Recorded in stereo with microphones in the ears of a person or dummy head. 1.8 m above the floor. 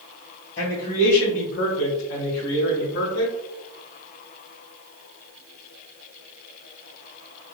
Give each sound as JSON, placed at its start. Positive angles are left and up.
{"t": 0.6, "sound": "a man speaking", "side_deg": 35, "distance_m": 1.0}